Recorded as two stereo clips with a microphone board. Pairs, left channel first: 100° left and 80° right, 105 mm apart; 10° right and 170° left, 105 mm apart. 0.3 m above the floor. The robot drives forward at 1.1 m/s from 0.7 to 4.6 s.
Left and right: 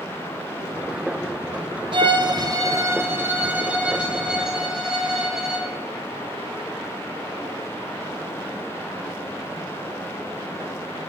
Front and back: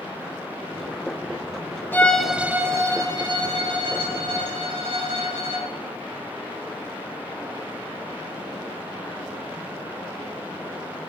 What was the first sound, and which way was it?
A violin, 80° right.